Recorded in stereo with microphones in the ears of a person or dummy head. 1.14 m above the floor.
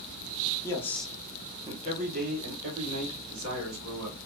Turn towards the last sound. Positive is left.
turn(degrees=-70)  # may be behind; listen again after turning